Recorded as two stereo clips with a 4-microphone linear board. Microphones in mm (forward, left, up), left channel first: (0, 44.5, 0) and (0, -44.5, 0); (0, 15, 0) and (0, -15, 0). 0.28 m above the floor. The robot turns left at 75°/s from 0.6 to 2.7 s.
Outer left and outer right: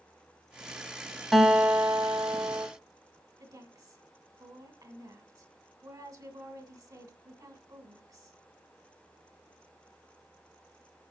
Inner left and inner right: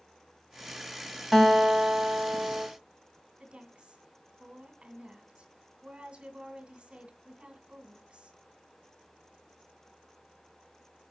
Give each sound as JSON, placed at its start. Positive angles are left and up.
{"t": 1.3, "sound": "a guitar", "azimuth_deg": -5, "distance_m": 1.7}
{"t": 3.4, "sound": "a woman speaking", "side_deg": -45, "distance_m": 2.0}